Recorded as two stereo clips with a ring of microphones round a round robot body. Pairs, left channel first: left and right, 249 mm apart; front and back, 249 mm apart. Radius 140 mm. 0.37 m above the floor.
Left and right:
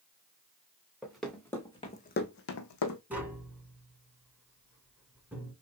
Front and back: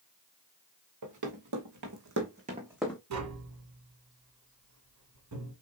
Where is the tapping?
175° right, 2 m.